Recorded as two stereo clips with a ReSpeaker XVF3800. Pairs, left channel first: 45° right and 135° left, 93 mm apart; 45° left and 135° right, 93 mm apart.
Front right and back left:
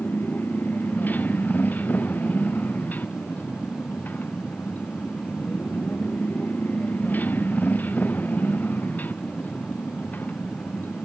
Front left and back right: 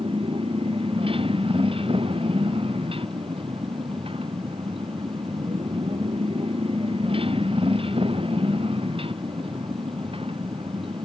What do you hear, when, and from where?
0.0 s a motorcycle: 115° right